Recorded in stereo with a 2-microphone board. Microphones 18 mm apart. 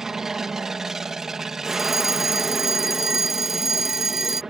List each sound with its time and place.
0.0 s an aircraft: 25° right (ahead or behind)
1.7 s a fire alarm: 15° right (ahead or behind)